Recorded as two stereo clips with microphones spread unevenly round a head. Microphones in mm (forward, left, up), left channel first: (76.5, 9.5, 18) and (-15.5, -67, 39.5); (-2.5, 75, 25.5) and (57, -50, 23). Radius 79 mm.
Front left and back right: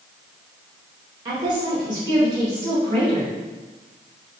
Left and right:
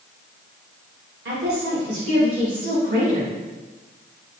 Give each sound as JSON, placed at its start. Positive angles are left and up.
{"t": 1.2, "sound": "a woman speaking", "azimuth_deg": -85, "distance_m": 1.3}